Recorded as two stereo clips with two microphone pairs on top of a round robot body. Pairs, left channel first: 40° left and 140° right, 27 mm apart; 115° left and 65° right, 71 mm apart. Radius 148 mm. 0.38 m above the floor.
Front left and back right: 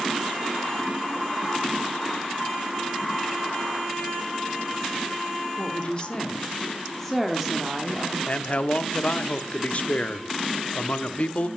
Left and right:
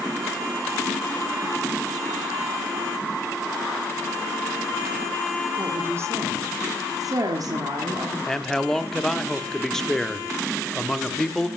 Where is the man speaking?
50° left, 1.0 m.